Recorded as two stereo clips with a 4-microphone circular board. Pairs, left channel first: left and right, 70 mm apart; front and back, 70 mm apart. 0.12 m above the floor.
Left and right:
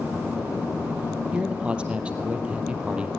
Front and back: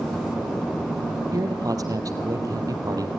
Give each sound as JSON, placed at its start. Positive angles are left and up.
{"t": 1.3, "sound": "a man speaking", "azimuth_deg": -160, "distance_m": 3.0}